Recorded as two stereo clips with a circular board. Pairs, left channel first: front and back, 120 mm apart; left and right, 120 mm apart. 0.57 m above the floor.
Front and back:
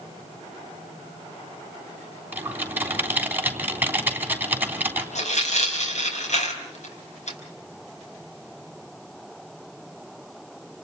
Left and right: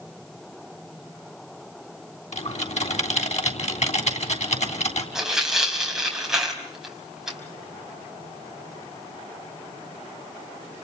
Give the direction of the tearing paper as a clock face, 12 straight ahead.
12 o'clock.